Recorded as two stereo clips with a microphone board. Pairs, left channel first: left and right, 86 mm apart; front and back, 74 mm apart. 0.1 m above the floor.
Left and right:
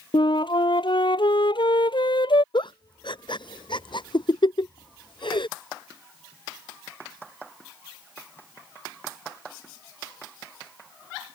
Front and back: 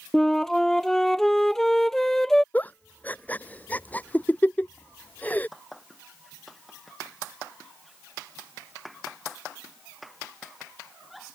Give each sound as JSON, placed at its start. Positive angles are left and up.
{"t": 0.1, "sound": "a flute", "azimuth_deg": 85}
{"t": 2.5, "sound": "a giggle", "azimuth_deg": 70}